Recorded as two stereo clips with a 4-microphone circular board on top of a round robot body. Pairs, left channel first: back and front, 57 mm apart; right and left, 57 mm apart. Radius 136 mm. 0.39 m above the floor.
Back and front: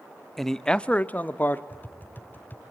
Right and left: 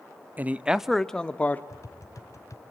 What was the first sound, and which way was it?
A man speaking, 95° left.